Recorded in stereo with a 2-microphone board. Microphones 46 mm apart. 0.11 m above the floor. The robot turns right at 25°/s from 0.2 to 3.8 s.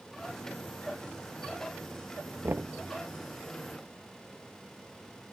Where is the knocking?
55° right (ahead or behind).